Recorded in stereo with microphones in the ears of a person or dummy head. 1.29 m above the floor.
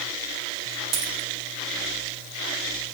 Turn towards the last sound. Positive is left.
turn(degrees=-55)  # may be behind; listen again after turning